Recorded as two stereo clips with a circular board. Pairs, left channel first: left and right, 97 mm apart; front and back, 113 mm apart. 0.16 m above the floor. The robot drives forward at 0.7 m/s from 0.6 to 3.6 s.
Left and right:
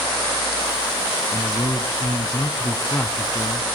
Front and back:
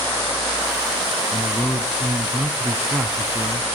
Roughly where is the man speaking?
Ahead left.